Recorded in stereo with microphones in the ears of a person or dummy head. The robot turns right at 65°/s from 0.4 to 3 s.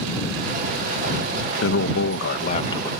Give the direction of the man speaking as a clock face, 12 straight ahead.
10 o'clock.